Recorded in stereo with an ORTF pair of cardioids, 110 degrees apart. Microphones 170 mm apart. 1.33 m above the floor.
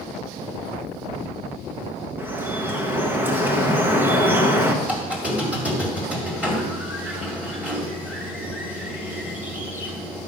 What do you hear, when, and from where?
2.2 s dripping: 10° right, 0.9 m
4.8 s a squeak: 10° right, 2 m